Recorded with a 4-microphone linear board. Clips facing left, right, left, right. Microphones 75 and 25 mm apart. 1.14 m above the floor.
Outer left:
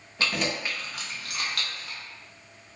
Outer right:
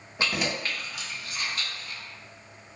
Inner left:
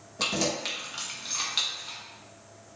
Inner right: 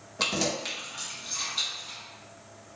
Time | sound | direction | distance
0.2 | keys jangling | 20° right (ahead or behind) | 0.8 m